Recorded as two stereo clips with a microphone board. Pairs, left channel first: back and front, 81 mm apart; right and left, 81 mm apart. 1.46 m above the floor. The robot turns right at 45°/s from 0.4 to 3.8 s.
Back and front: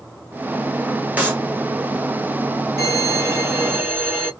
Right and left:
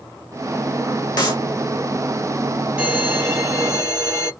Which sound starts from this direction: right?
A clap, at 1.2 s.